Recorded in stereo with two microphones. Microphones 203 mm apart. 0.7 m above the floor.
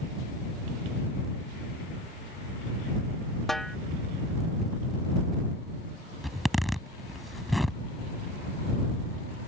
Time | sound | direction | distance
3.5 | a snare drum | centre (ahead or behind) | ?
6.2 | a zipper | centre (ahead or behind) | ?